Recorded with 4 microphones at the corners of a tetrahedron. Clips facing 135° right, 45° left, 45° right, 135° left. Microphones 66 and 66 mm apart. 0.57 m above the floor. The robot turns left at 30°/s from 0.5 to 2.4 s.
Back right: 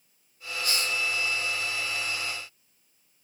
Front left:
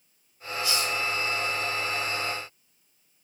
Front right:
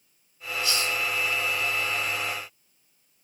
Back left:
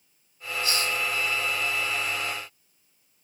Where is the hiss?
175° right, 2.5 m; by 1.0 s 170° left, 2.5 m.